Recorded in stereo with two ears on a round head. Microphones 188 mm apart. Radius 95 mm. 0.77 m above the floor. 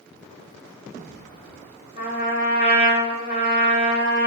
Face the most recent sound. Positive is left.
turn(degrees=45)  # may be behind; listen again after turning